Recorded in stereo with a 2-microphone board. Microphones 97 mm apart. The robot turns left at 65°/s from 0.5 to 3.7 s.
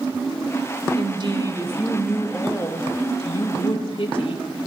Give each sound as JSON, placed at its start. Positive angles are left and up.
{"t": 1.0, "sound": "a woman speaking", "azimuth_deg": -105, "distance_m": 1.6}